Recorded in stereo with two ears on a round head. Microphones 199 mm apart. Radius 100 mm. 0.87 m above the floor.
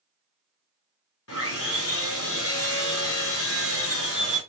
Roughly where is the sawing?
Left.